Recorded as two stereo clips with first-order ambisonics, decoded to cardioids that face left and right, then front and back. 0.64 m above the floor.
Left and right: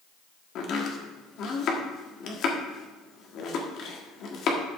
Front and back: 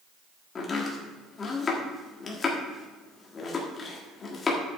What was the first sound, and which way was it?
Chopping, 60° left.